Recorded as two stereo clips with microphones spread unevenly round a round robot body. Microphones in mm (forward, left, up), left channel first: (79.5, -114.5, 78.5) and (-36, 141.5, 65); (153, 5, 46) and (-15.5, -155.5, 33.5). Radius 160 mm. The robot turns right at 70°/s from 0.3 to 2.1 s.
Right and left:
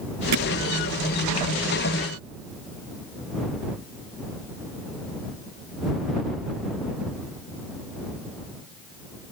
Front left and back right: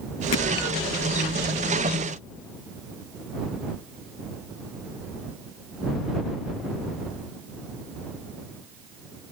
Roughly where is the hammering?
Left.